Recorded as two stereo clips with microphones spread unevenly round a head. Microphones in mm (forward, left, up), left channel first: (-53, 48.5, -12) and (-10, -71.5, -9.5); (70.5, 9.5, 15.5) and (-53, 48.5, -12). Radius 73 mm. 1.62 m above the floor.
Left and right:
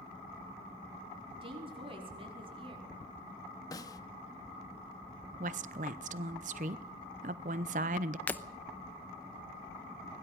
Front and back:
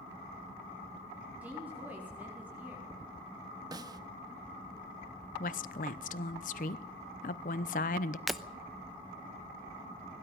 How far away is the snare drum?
About 1.0 m.